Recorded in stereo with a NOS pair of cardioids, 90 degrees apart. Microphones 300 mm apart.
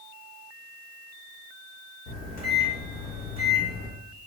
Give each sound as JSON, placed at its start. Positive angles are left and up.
{"t": 2.1, "sound": "a microwave", "azimuth_deg": 60, "distance_m": 1.4}